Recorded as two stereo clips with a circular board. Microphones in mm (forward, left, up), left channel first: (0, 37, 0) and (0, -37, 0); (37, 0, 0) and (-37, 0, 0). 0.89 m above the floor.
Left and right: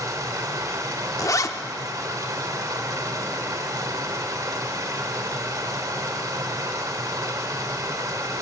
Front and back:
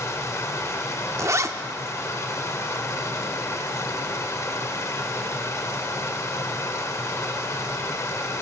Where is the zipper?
130° left, 0.8 m.